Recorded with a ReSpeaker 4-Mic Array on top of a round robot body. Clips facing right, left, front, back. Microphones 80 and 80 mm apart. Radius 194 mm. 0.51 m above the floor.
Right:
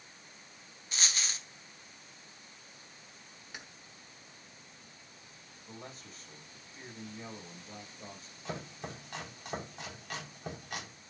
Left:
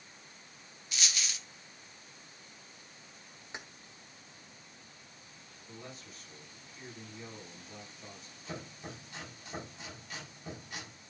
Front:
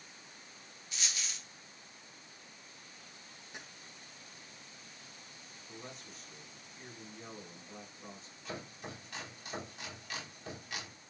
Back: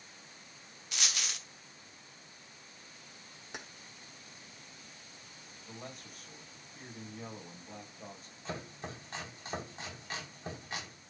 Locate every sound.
0.9 s a dropped coin: 145° right, 0.6 m
3.5 s keys jangling: 160° left, 1.4 m
5.7 s a man speaking: 145° right, 5.5 m
8.4 s chopping: 120° right, 4.5 m